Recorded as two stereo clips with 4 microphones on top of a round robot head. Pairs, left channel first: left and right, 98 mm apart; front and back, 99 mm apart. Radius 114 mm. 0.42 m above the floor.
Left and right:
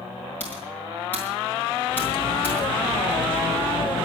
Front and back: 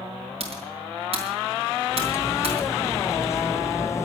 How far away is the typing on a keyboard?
About 4 m.